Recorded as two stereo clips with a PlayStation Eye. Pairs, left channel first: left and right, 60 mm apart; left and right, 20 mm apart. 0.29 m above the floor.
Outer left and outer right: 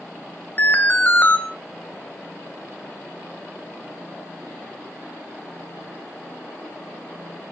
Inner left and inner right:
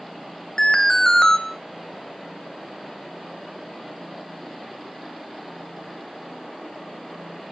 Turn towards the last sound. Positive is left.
turn(degrees=30)  # may be behind; listen again after turning